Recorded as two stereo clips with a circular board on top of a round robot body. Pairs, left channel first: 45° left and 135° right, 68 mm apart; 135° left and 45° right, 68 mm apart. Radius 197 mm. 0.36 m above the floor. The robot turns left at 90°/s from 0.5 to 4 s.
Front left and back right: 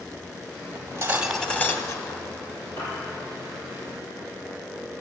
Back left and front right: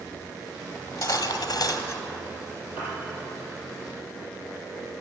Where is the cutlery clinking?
170° right, 1.3 m; by 2.2 s 60° left, 1.3 m.